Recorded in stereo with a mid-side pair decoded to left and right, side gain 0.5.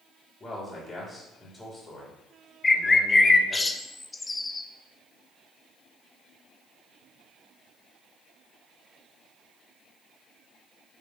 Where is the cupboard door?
I don't hear a cupboard door.